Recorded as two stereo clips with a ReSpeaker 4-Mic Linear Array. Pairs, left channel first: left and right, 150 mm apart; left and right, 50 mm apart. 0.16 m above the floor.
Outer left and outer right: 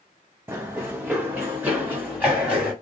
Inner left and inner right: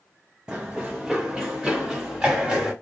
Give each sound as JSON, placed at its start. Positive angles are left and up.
{"t": 0.5, "sound": "running footsteps", "side_deg": -15, "distance_m": 0.8}